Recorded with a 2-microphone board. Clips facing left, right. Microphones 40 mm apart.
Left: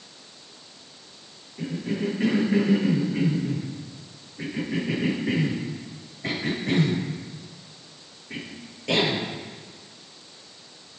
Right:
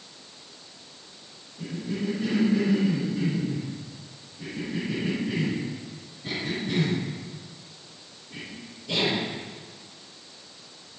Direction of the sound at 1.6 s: 85° left.